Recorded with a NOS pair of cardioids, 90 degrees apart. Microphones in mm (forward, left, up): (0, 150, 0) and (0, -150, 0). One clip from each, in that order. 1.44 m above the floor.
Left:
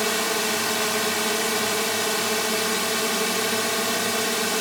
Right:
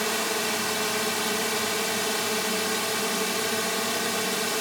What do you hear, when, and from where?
0.0 s a drone: 20° left